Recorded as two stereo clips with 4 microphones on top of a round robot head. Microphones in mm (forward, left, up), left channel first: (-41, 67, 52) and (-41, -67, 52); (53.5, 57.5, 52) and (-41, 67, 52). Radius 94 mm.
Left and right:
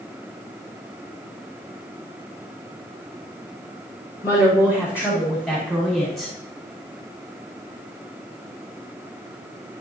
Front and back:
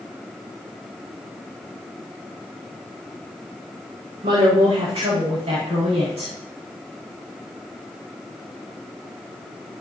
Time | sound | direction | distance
4.2 | a woman speaking | 155° left | 3.5 m